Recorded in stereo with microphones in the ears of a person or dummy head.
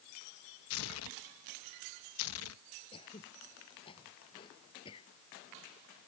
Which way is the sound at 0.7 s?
75° left (ahead or behind).